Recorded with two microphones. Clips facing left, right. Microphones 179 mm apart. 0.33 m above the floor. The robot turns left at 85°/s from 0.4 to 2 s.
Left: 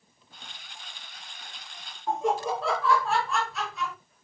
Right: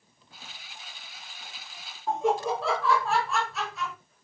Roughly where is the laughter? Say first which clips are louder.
Right 1 dB; centre.